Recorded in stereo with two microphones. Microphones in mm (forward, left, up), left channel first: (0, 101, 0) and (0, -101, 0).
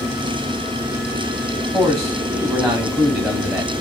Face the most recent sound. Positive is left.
turn(degrees=-5)  # may be behind; listen again after turning